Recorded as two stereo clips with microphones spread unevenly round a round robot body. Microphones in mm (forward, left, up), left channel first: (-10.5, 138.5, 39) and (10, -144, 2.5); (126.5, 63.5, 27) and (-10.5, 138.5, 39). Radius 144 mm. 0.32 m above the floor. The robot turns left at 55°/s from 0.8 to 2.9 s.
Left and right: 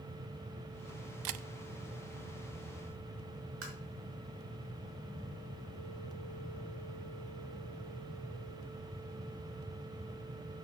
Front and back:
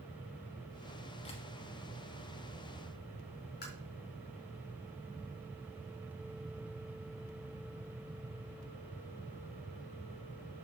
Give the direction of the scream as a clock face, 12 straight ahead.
I don't hear a scream.